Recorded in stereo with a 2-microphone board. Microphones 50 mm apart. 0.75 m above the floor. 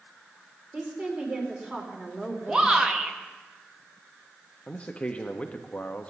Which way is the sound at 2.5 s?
15° right (ahead or behind).